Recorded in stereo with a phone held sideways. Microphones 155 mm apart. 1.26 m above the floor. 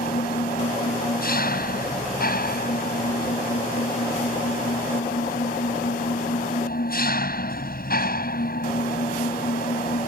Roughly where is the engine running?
Left.